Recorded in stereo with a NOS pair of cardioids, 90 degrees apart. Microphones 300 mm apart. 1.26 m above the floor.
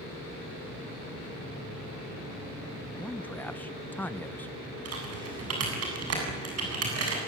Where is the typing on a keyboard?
50° right, 8 m.